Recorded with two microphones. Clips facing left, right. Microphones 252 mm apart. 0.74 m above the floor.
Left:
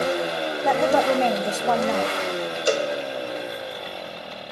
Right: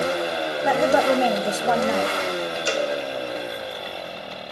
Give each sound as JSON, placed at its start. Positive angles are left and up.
{"t": 0.6, "sound": "a woman speaking", "side_deg": -5, "distance_m": 0.7}
{"t": 2.7, "sound": "a cowbell", "side_deg": 45, "distance_m": 0.5}